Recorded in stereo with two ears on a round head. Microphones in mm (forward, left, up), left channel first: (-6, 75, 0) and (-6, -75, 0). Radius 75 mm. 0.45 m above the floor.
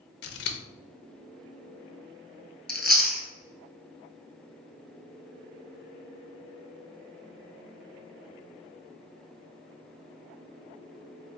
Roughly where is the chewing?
Centre.